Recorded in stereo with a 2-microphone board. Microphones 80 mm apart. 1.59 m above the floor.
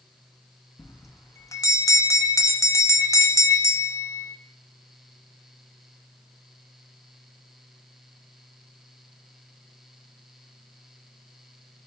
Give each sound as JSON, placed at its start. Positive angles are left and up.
{"t": 0.8, "sound": "a bell", "side_deg": 40, "distance_m": 0.5}